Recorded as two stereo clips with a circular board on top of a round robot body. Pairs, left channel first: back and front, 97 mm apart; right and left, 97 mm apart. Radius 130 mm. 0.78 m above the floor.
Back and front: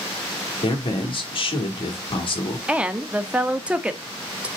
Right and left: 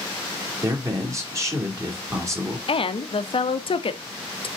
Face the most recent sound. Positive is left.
turn(degrees=-80)